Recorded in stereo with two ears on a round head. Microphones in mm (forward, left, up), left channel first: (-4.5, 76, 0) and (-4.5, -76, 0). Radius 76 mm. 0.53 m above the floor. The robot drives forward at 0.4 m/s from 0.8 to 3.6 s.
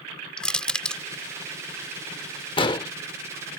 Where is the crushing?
5° left (ahead or behind).